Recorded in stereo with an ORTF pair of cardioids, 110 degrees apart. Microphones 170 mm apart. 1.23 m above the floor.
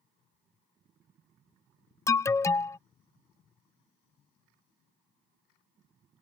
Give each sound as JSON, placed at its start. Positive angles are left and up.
{"t": 2.1, "sound": "an alarm", "azimuth_deg": 15}